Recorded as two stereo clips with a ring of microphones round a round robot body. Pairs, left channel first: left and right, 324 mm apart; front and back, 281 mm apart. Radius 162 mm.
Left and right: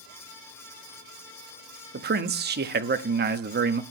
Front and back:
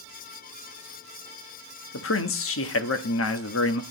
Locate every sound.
1.9 s a man speaking: 35° right, 1.1 m